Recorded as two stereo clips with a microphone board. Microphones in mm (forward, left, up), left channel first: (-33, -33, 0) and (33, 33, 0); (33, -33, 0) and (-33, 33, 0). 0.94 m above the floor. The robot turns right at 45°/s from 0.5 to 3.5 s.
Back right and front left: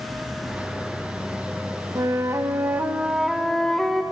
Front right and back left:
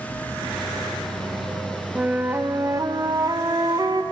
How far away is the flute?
About 0.7 m.